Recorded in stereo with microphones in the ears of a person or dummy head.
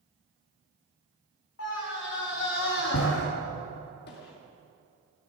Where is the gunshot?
55° left (ahead or behind), 2.5 m.